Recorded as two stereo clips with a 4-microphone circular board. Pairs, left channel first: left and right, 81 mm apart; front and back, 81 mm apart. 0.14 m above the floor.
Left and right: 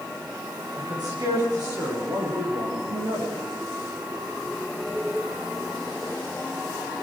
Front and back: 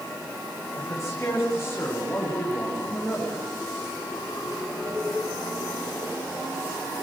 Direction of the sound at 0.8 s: 50° right.